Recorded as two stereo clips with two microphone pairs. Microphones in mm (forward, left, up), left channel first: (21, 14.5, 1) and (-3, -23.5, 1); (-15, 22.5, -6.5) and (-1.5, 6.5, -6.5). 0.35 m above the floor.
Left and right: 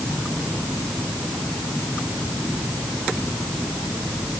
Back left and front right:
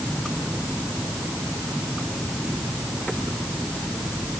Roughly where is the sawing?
No sawing in this recording.